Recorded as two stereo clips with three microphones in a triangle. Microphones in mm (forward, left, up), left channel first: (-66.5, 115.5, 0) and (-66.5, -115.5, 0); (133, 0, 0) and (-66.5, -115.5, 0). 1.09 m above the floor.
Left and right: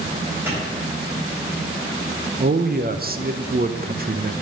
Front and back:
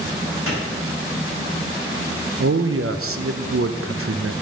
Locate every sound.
0.5 s a clap: 170° right, 4 m
2.4 s a man speaking: 140° right, 0.6 m